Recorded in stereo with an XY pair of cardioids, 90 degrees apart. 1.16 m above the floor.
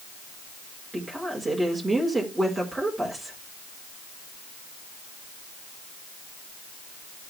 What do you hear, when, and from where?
0.9 s a woman speaking: 25° right, 4 m